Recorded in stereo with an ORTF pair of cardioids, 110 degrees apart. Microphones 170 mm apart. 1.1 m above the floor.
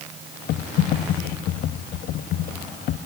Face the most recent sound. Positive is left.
turn(degrees=65)